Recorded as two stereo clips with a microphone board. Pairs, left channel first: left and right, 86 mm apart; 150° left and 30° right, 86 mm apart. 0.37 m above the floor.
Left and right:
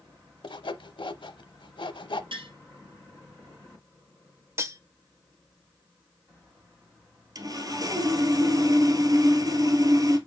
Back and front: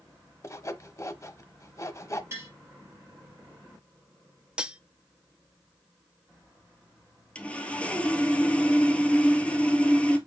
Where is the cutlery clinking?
95° right, 0.7 m.